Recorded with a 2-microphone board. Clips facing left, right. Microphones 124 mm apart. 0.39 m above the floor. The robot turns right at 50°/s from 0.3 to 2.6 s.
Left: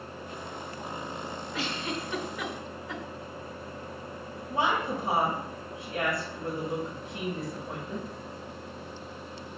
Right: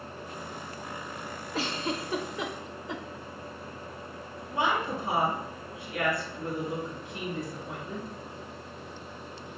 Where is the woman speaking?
25° left (ahead or behind), 1.3 m.